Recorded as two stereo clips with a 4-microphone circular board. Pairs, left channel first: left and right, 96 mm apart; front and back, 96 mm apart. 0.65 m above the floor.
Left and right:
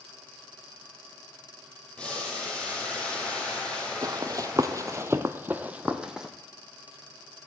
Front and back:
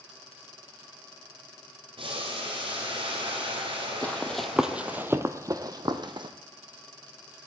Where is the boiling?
165° left, 3.5 m.